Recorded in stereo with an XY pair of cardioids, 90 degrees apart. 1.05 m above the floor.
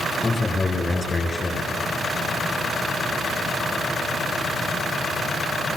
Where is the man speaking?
30° left, 9.5 m.